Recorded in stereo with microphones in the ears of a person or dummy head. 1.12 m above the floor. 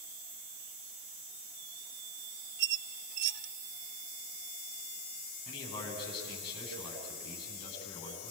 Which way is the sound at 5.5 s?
25° left (ahead or behind).